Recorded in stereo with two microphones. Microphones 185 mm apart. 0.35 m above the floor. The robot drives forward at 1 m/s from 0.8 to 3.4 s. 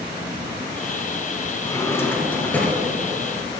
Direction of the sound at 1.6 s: 20° left (ahead or behind).